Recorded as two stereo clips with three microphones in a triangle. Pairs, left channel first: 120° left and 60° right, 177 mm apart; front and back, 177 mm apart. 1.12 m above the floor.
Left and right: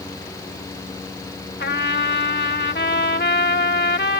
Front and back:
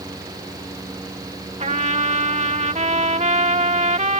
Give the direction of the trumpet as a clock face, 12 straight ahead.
8 o'clock.